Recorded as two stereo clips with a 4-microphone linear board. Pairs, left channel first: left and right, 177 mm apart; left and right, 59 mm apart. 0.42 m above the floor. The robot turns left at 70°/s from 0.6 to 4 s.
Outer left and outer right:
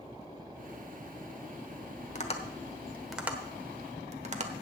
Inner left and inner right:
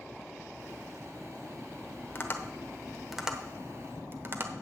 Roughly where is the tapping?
Left.